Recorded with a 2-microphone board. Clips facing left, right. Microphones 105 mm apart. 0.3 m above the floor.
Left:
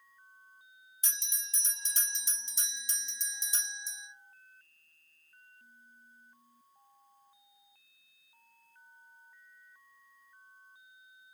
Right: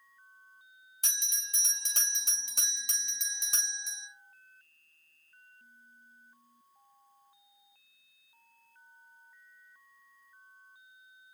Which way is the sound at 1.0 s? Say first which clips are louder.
Right 1 dB; 65° right (ahead or behind).